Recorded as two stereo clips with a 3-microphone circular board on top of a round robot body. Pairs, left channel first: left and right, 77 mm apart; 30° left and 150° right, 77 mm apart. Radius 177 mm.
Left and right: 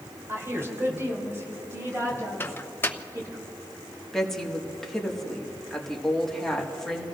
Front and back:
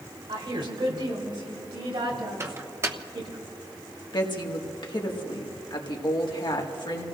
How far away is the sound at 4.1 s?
About 1.8 m.